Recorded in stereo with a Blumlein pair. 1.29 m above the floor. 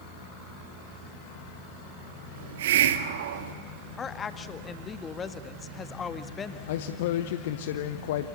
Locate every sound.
2.4 s a hiss: 55° right, 1.4 m
4.0 s a woman speaking: 20° left, 1.6 m
6.7 s a man speaking: 55° left, 0.9 m